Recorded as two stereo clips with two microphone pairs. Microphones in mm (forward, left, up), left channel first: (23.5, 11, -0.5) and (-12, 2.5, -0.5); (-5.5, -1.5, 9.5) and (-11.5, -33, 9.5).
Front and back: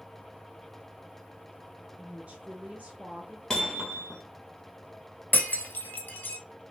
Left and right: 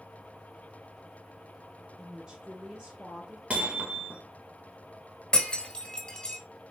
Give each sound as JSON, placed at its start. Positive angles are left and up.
{"t": 2.0, "sound": "a woman speaking", "azimuth_deg": -145, "distance_m": 1.2}
{"t": 3.5, "sound": "hammering", "azimuth_deg": -60, "distance_m": 1.7}
{"t": 5.3, "sound": "breaking glass", "azimuth_deg": 20, "distance_m": 1.2}